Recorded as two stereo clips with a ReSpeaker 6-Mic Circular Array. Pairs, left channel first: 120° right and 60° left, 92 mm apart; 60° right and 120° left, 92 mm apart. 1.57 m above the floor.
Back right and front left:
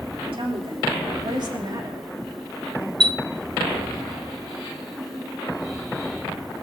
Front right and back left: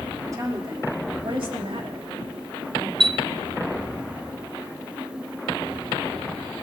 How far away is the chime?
About 0.6 m.